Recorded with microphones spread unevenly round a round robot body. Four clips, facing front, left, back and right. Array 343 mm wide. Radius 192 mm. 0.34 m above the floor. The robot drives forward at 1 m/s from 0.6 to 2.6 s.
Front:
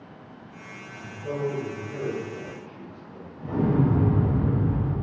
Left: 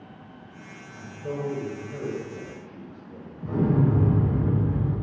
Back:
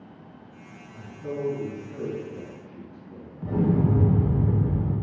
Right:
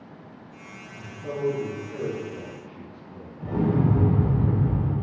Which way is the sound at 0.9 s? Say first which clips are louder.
Right 1 dB, front 1 dB; 155° right.